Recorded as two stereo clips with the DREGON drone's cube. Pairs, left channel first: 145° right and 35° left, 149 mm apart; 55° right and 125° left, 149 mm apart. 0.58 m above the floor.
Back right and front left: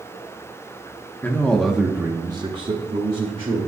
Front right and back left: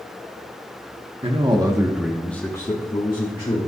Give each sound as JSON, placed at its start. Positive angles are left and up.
{"t": 1.2, "sound": "a man speaking", "azimuth_deg": 145, "distance_m": 1.4}